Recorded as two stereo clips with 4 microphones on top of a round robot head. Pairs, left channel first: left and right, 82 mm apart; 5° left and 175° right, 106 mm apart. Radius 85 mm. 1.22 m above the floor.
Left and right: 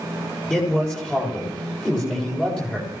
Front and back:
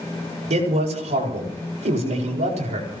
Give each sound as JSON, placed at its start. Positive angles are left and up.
{"t": 0.5, "sound": "a man speaking", "azimuth_deg": 170, "distance_m": 7.0}